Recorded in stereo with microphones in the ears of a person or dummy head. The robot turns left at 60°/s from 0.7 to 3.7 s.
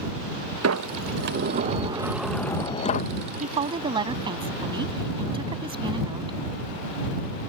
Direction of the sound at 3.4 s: 40° right (ahead or behind).